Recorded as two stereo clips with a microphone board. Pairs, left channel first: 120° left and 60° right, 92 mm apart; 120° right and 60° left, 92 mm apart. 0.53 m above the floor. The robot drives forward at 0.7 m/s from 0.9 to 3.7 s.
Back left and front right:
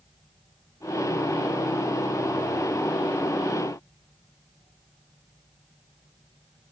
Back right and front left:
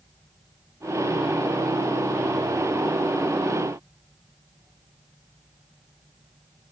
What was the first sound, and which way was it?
Only background noise.